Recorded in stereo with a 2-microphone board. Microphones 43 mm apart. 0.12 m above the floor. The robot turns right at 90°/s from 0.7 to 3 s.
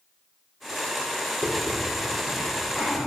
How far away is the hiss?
About 3 m.